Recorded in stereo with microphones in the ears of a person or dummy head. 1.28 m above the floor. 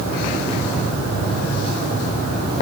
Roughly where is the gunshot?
I don't hear a gunshot.